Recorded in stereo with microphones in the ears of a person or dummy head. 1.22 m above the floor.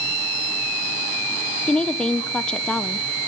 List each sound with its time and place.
1.7 s a woman speaking: centre (ahead or behind), 0.7 m